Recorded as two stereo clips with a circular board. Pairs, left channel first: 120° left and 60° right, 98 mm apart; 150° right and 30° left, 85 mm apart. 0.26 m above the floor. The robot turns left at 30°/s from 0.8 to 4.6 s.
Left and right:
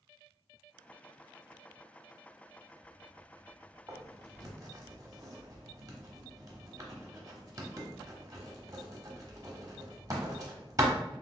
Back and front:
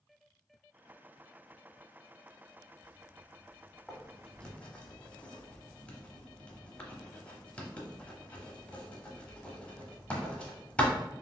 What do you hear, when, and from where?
3.9 s writing: 65° right, 0.9 m; by 10.9 s 85° right, 0.9 m